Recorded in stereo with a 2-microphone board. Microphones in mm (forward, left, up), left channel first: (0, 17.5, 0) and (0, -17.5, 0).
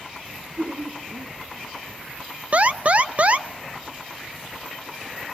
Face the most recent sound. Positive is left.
turn(degrees=-40)  # may be behind; listen again after turning